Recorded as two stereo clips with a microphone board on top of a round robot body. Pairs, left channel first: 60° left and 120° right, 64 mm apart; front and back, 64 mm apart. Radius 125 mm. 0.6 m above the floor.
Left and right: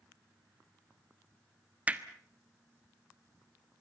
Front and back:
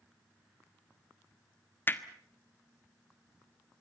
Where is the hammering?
55° right, 1.7 m.